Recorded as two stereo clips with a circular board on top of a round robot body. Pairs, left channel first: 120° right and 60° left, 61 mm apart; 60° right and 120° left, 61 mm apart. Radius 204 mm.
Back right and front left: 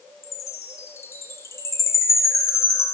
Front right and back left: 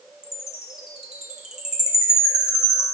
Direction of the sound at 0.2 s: 165° right.